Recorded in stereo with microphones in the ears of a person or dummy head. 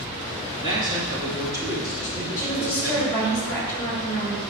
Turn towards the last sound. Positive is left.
turn(degrees=20)  # may be behind; listen again after turning